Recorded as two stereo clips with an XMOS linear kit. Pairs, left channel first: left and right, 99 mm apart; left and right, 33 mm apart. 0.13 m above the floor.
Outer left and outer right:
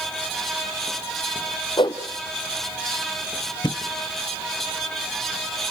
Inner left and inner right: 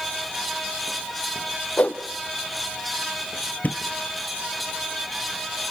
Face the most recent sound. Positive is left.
turn(degrees=50)  # may be behind; listen again after turning